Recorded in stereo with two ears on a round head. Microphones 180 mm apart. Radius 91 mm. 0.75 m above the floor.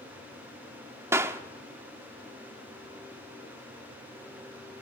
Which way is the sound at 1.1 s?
15° right (ahead or behind).